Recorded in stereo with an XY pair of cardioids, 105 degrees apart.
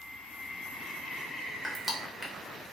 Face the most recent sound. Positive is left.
turn(degrees=-10)